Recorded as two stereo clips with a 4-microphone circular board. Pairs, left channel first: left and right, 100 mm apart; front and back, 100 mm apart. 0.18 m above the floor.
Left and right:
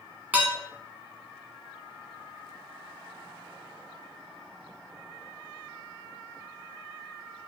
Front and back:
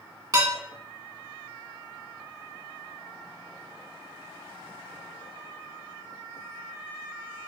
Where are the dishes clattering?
155° right, 0.9 m.